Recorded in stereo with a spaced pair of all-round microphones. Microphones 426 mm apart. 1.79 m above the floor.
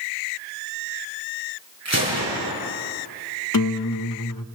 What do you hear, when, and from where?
1.9 s a gunshot: 35° right (ahead or behind), 7 m
3.5 s a guitar: 50° left (ahead or behind), 0.7 m